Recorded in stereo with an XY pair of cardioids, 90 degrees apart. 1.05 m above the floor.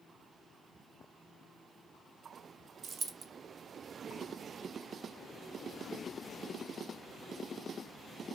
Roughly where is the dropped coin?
Ahead right.